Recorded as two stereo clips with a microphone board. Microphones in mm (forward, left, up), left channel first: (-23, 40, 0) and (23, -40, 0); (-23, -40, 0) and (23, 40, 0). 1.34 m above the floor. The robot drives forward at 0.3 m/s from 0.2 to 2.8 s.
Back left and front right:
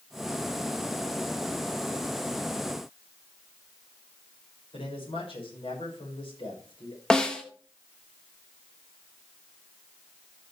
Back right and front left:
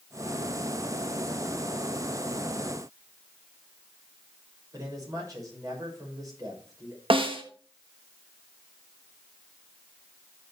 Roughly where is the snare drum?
Ahead left.